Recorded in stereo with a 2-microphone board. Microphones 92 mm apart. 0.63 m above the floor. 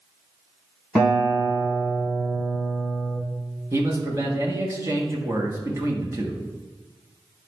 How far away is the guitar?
About 2.5 m.